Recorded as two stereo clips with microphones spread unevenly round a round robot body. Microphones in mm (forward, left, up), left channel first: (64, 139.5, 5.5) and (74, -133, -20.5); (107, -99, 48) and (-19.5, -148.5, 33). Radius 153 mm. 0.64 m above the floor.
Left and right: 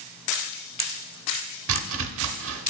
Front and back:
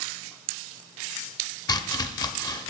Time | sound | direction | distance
1.7 | chopping | 45° right | 0.7 m